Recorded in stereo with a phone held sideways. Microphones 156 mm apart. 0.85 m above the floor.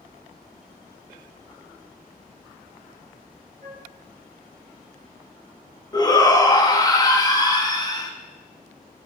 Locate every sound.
3.6 s a flute: 45° right (ahead or behind), 1.7 m
5.9 s a shout: 25° left (ahead or behind), 1.1 m